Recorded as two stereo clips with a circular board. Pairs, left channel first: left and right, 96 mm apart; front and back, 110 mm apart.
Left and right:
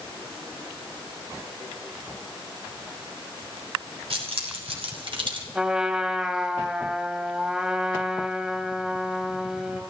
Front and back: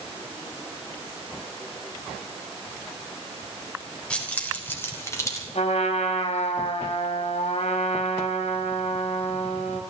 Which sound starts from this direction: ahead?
A trumpet, at 5.5 s.